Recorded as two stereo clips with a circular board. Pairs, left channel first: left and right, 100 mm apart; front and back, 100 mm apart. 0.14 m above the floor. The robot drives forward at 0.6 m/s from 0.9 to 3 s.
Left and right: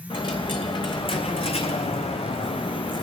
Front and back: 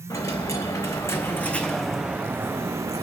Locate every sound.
0.1 s a dropped coin: 55° left, 1.1 m; by 3.0 s 125° left, 1.1 m